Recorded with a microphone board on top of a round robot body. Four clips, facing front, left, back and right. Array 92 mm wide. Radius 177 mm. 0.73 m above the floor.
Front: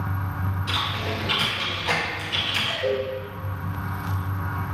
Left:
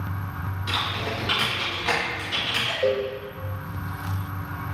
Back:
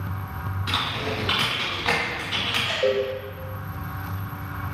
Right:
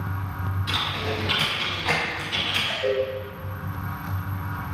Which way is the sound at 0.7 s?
175° left.